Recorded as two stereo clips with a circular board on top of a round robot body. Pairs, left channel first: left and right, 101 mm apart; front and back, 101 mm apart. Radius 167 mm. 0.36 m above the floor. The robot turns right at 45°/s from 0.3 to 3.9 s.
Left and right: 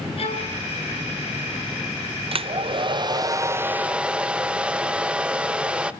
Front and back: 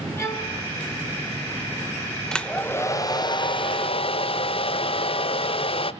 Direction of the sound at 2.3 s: 85° right.